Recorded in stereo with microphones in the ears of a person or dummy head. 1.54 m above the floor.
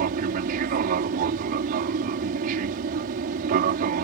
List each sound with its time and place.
0.0 s an aircraft: 45° right (ahead or behind)